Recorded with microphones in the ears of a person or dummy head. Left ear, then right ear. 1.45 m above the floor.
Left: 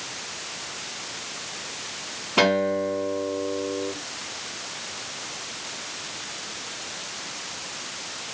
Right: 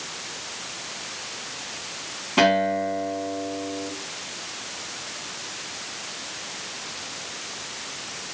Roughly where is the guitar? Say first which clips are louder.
Right 1 dB; centre.